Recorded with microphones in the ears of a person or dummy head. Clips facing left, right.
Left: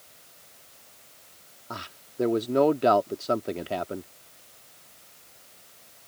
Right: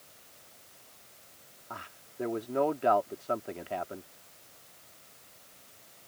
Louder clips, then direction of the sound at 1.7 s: Left 7 dB; 55° left (ahead or behind).